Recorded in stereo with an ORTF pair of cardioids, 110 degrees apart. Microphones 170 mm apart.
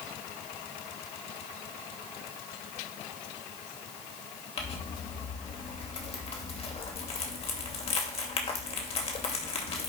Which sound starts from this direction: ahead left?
Crumpling, at 4.6 s.